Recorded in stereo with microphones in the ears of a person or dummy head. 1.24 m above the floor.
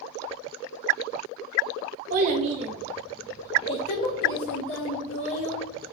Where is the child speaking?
45° right (ahead or behind), 0.8 m; by 5.8 s 70° left (ahead or behind), 1.5 m.